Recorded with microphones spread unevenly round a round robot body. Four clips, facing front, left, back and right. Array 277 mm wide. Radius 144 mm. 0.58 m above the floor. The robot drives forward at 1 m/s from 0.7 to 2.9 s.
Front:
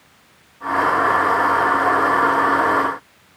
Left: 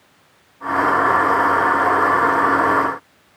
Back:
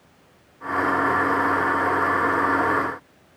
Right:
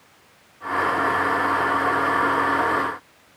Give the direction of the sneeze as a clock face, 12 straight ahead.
I don't hear a sneeze.